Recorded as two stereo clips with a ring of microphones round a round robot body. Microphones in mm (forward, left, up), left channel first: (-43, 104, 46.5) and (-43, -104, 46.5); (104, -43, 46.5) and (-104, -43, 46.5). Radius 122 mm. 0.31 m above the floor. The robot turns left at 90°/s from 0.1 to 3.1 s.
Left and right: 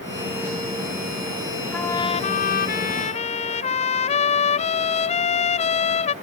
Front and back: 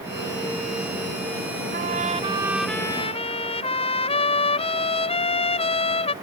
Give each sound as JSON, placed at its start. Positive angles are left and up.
{"t": 1.7, "sound": "a trumpet", "azimuth_deg": 170}